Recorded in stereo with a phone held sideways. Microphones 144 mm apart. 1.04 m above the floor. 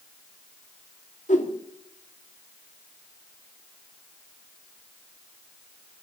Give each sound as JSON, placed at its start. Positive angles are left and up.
{"t": 1.3, "sound": "a whoosh", "side_deg": 60, "distance_m": 2.0}